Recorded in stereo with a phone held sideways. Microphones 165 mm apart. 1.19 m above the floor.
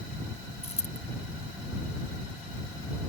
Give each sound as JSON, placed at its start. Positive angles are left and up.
{"t": 0.6, "sound": "a dropped coin", "side_deg": 40}